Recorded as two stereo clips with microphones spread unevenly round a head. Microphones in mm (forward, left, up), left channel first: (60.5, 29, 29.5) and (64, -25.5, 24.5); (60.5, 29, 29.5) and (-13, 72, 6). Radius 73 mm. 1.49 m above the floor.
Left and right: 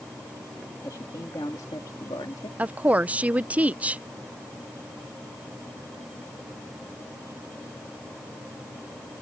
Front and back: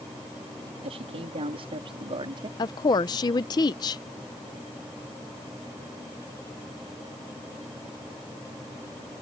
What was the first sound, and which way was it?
A man speaking, 155° left.